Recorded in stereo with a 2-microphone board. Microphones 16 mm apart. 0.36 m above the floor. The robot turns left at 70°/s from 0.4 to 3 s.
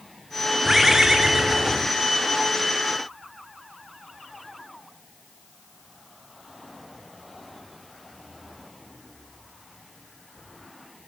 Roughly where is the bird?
Ahead.